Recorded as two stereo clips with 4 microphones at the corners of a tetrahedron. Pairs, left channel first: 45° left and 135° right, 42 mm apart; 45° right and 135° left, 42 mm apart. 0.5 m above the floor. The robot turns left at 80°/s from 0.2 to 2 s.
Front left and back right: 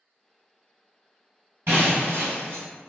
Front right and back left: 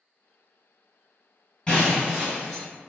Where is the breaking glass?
110° right, 1.5 m; by 2.6 s 140° right, 1.5 m.